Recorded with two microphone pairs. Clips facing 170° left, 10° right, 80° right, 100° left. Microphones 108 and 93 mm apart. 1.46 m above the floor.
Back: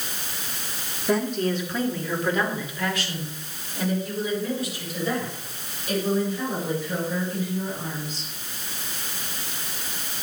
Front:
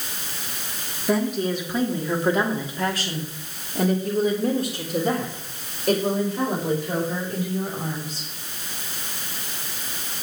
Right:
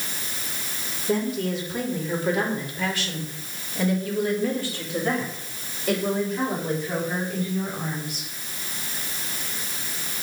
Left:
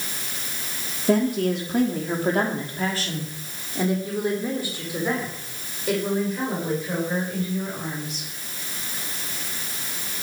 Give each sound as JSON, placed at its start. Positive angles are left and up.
{"t": 1.1, "sound": "a woman speaking", "azimuth_deg": 75, "distance_m": 3.0}